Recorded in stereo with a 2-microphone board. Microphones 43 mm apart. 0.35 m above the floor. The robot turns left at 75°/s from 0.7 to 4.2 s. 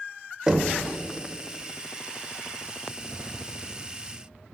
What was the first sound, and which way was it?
Knocking, 15° right (ahead or behind).